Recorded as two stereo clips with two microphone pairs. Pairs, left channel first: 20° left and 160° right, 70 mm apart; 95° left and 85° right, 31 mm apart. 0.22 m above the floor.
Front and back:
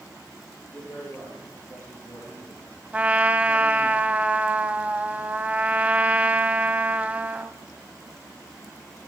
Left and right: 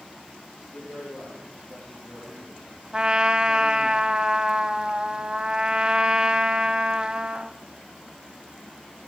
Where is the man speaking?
80° left, 5 m; by 3.9 s 40° left, 4.5 m.